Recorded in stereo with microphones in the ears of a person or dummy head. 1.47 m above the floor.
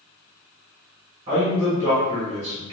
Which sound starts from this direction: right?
A man speaking, at 1.3 s.